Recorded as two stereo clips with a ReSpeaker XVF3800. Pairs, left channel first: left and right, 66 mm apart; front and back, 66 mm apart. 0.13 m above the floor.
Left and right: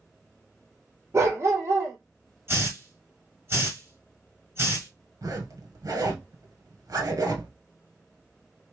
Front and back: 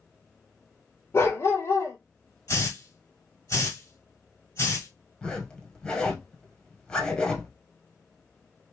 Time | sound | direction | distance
1.1 | a dog barking | 45° right | 1.4 m
2.5 | a hiss | 40° right | 1.9 m
5.2 | a zipper | 75° right | 1.4 m